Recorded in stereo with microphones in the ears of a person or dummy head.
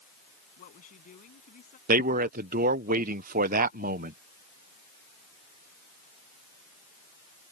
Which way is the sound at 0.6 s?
45° left (ahead or behind).